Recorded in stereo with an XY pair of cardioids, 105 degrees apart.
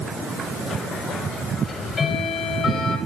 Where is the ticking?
50° left, 8.5 m.